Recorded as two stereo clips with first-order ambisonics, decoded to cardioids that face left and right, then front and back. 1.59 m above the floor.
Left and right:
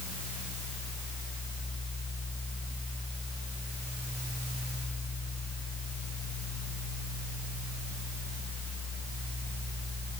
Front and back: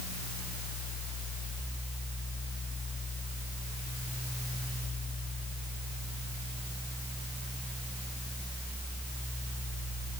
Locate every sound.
Only background noise.